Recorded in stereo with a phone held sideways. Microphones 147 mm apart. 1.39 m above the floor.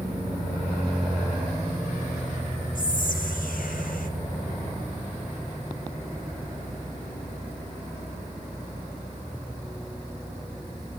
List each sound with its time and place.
2.8 s whispering: 80° left, 1.6 m